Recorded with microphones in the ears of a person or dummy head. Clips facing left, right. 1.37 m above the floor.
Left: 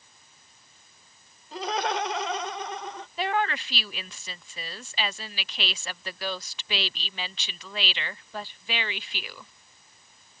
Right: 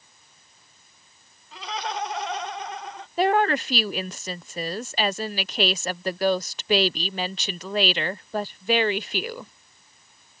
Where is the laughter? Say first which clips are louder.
Left 4 dB; 35° left (ahead or behind); by 3.1 s 75° left (ahead or behind).